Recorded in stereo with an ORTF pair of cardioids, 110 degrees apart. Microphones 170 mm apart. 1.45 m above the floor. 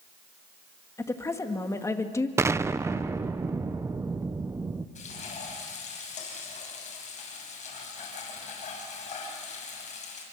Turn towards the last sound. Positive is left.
turn(degrees=45)